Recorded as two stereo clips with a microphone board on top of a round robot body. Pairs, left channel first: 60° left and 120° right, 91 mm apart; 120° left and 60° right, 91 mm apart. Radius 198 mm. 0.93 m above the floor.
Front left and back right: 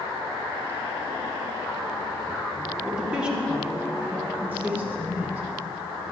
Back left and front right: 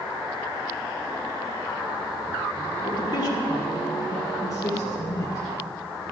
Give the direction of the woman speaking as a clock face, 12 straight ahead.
7 o'clock.